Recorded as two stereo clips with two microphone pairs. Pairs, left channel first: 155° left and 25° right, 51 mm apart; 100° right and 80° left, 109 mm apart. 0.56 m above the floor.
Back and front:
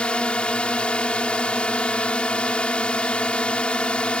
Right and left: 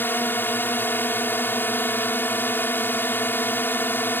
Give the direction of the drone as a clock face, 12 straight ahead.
5 o'clock.